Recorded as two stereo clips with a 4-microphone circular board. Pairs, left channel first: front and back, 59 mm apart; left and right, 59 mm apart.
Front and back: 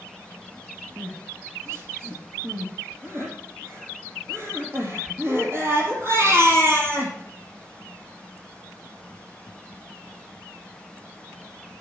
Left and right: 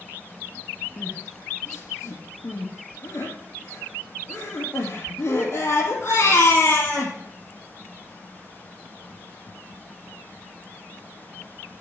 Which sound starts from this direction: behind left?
Crying, at 1.0 s.